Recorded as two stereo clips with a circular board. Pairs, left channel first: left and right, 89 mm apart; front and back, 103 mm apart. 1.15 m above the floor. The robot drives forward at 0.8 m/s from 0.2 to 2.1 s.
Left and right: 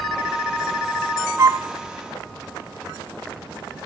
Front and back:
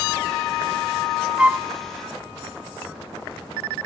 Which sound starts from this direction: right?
A flute, at 1.4 s.